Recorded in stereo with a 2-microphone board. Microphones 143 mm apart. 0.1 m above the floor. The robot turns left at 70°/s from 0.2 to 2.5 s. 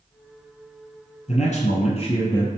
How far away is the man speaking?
About 1.6 m.